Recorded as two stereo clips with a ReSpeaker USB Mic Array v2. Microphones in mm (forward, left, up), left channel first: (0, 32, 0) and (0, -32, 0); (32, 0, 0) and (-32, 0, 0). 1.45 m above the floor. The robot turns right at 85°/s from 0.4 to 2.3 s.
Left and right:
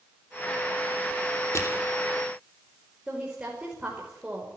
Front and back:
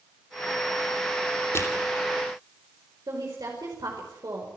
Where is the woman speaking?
160° right, 5 m.